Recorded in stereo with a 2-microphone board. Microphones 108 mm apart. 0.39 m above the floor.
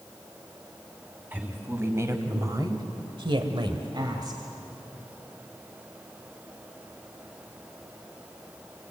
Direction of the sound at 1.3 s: 20° right (ahead or behind).